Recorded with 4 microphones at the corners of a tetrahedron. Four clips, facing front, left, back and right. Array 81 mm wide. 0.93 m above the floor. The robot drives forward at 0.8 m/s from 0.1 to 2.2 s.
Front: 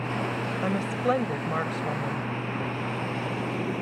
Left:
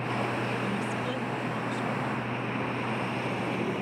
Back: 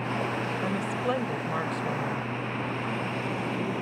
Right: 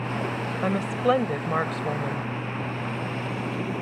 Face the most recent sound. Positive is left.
turn(degrees=-85)